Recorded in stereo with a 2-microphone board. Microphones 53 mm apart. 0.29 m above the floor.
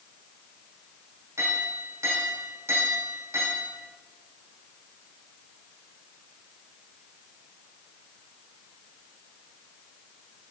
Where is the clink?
60° right (ahead or behind), 7.5 m.